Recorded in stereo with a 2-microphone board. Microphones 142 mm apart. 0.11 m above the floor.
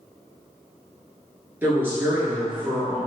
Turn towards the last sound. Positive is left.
turn(degrees=-15)  # may be behind; listen again after turning